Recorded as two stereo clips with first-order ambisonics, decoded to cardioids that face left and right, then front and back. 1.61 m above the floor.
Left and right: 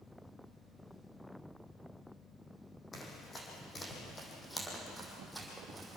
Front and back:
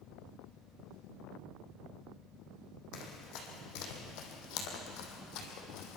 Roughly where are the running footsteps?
Ahead.